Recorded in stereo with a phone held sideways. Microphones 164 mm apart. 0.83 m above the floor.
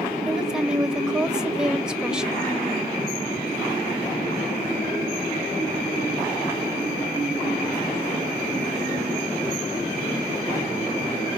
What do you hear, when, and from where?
0.2 s a woman speaking: 5° right (ahead or behind), 1.2 m